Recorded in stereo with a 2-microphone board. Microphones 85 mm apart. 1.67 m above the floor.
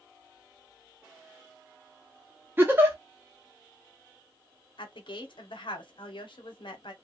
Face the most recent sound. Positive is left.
turn(degrees=70)  # may be behind; listen again after turning